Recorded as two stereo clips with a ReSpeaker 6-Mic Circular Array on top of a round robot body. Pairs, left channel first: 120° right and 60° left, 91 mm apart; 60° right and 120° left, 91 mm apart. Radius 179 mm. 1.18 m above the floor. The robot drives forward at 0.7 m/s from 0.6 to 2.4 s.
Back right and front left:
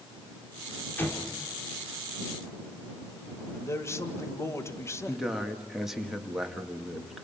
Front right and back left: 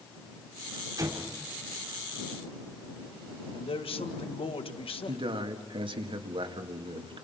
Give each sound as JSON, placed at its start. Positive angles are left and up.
{"t": 1.0, "sound": "an explosion", "azimuth_deg": 170, "distance_m": 3.0}
{"t": 3.5, "sound": "a man speaking", "azimuth_deg": -60, "distance_m": 2.0}
{"t": 5.1, "sound": "a man speaking", "azimuth_deg": 145, "distance_m": 2.0}